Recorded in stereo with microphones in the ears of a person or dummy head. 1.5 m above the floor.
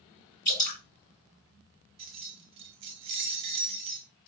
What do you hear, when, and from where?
0.5 s dripping: 55° left (ahead or behind), 4 m
2.0 s keys jangling: 35° right (ahead or behind), 0.7 m